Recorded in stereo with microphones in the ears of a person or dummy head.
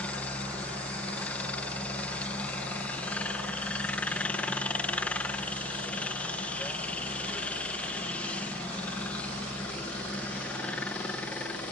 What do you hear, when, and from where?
0.0 s a helicopter: 5° left (ahead or behind)